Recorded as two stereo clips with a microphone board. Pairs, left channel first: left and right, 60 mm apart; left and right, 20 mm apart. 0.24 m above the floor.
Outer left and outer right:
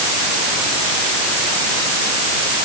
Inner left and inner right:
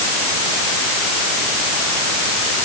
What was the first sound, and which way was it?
Only background noise.